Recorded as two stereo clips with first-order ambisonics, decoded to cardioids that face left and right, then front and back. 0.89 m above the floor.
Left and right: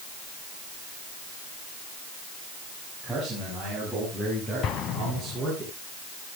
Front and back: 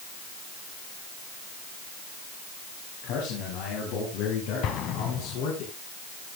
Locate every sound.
3.0 s a man speaking: 10° left, 7.5 m; by 5.6 s 5° left, 11 m
4.6 s an explosion: 45° left, 2 m